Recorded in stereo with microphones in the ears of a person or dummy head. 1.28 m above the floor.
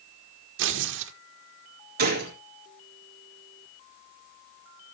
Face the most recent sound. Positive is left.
turn(degrees=-40)  # may be behind; listen again after turning